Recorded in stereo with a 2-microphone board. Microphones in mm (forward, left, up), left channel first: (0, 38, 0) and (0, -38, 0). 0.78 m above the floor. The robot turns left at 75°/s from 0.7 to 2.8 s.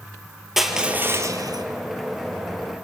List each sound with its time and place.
0.6 s crushing: 5° right, 3 m; by 1.6 s 75° right, 3 m